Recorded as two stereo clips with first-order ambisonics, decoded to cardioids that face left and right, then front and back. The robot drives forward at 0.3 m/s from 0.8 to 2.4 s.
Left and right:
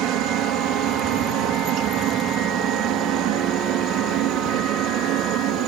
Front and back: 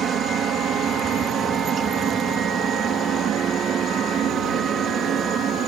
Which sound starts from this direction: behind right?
A helicopter, at 0.0 s.